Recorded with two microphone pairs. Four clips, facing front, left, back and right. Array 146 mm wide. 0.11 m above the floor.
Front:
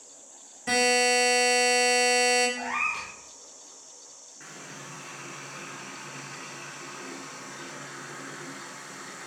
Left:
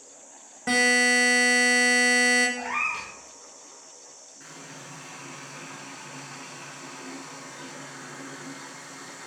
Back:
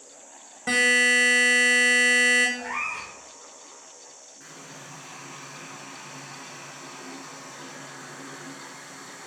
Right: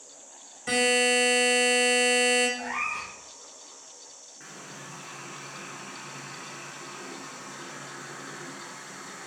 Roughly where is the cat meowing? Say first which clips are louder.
Left 2 dB, front 1 dB; ahead left.